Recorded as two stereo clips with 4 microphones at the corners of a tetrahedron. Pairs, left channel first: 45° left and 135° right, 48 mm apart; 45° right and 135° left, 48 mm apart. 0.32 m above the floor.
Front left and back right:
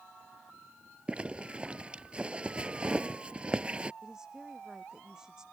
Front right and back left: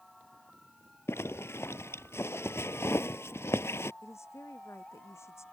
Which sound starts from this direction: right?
A zipper, at 1.1 s.